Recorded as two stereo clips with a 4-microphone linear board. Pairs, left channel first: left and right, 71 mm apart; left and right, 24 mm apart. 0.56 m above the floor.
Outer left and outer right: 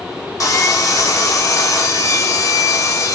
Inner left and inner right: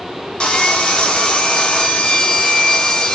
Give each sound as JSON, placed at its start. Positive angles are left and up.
{"t": 0.4, "sound": "sawing", "side_deg": 50, "distance_m": 1.3}